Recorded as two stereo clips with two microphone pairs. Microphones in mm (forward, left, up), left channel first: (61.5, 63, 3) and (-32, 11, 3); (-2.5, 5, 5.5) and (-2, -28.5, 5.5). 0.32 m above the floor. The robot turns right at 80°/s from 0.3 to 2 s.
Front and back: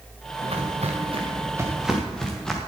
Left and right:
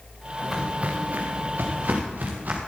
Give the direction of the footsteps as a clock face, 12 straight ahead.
6 o'clock.